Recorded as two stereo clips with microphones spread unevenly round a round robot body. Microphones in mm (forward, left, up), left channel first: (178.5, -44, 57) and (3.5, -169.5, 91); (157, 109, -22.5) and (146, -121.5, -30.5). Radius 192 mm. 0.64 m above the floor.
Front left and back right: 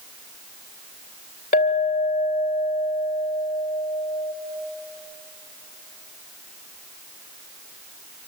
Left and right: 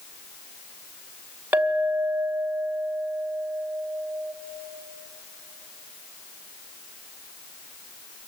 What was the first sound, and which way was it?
A clink, 10° right.